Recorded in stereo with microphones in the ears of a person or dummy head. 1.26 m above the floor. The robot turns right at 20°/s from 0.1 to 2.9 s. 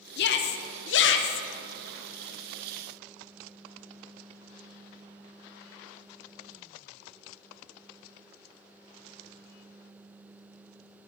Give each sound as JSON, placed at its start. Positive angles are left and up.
{"t": 0.2, "sound": "a shout", "side_deg": 55, "distance_m": 0.8}